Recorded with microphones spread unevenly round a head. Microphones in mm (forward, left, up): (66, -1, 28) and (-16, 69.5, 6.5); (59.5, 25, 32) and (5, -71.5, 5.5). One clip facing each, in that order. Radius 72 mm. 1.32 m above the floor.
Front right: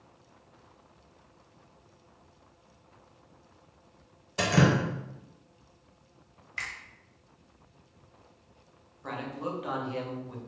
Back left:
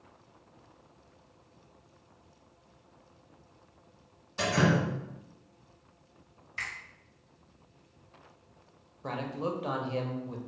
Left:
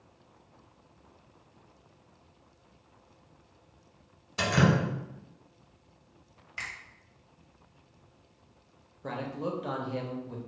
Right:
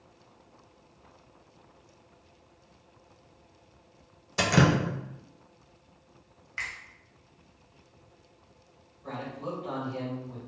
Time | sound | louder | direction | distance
4.4 | dripping | front right 2 dB, right 2 dB | 95° right | 0.5 m
6.6 | a finger snap | even, right 2 dB | 10° right | 1.3 m
9.0 | a man speaking | back left 2 dB, left 2 dB | 80° left | 0.7 m